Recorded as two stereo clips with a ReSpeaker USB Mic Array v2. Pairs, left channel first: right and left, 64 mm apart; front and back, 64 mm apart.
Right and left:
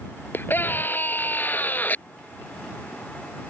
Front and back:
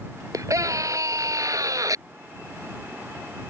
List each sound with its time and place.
0.3 s a scream: 150° right; by 2.0 s 155° right